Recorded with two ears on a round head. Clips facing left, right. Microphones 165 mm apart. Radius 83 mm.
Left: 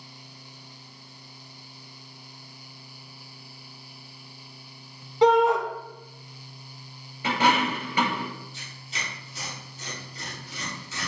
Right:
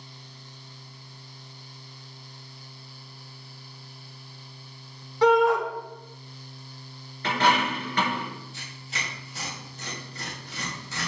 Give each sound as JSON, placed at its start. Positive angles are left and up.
{"t": 5.2, "sound": "a shout", "side_deg": 20, "distance_m": 1.3}
{"t": 7.2, "sound": "a dropped coin", "side_deg": 10, "distance_m": 2.0}
{"t": 8.5, "sound": "tearing paper", "side_deg": -45, "distance_m": 3.5}